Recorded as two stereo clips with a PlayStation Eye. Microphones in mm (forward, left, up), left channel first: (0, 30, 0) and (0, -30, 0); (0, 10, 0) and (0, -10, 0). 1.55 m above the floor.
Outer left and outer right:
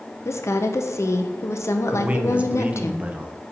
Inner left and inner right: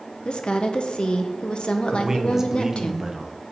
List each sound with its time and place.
0.2 s a woman speaking: 50° left (ahead or behind), 0.7 m
1.9 s a man speaking: 20° right (ahead or behind), 0.8 m